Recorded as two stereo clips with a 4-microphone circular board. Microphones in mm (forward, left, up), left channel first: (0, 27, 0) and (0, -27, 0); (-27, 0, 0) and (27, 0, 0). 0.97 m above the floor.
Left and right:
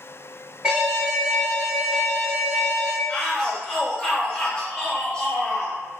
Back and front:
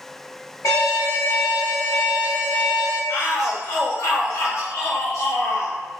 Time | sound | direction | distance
0.6 | an alarm | 165° right | 1.3 m
3.1 | a shout | 165° left | 1.5 m